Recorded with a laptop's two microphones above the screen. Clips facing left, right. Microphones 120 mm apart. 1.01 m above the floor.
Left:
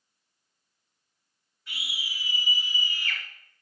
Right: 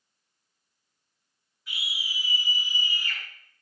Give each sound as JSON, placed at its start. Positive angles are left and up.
{"t": 1.7, "sound": "a scream", "side_deg": 0, "distance_m": 6.5}